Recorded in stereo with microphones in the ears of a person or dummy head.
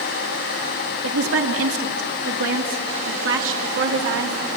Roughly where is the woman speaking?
Right.